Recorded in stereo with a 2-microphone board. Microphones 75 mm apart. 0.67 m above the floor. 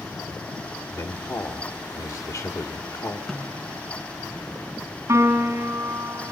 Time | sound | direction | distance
0.9 | a man speaking | 50° left (ahead or behind) | 1.9 m
3.3 | a snare drum | centre (ahead or behind) | 2 m
5.1 | a piano | 45° right (ahead or behind) | 2.5 m